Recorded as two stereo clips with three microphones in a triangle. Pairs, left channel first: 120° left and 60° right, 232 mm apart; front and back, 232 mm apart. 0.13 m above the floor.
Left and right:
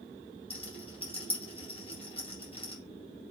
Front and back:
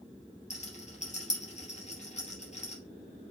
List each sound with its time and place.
0.5 s a rattle: 55° left, 3 m